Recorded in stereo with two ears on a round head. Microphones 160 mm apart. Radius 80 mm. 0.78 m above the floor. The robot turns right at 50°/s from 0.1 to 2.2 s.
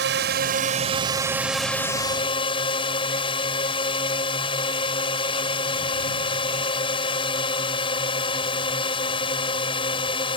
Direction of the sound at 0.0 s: 75° right.